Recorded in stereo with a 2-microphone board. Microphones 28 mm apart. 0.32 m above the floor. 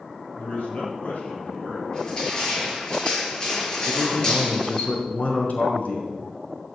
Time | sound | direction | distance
0.4 | a man speaking | 60° left (ahead or behind) | 7 m
1.9 | crushing | 30° left (ahead or behind) | 5 m
3.9 | a man speaking | 60° left (ahead or behind) | 4 m